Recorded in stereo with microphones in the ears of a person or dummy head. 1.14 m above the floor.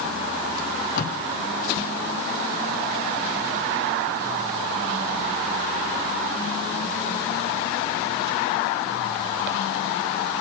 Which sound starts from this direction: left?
Tape being pulled, at 0.6 s.